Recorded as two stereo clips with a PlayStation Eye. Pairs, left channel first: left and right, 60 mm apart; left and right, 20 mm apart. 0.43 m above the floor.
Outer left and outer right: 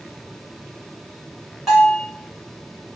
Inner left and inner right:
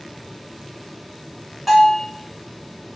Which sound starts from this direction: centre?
A bell, at 1.7 s.